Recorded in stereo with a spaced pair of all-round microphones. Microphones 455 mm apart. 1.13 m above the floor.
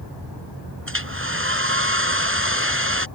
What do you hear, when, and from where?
0.9 s a hair dryer: 30° right (ahead or behind)